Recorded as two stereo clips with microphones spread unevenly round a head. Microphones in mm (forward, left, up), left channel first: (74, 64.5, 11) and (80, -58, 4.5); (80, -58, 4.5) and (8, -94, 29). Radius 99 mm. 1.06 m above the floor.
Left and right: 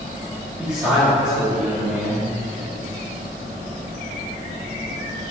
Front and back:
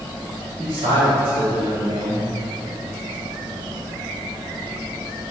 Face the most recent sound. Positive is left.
turn(degrees=-170)